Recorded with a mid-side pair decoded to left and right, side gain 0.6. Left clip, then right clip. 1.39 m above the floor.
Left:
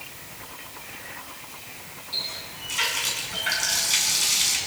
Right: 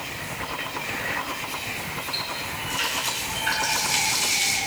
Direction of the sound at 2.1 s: 55° left.